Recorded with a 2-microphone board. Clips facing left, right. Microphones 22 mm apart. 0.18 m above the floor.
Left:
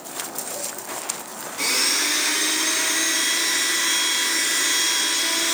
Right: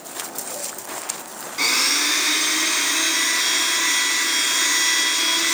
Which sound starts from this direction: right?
A blender, at 1.6 s.